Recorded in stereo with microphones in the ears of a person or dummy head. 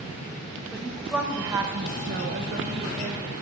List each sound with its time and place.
0.7 s a woman speaking: centre (ahead or behind), 1.8 m; by 3.4 s 35° right (ahead or behind), 2 m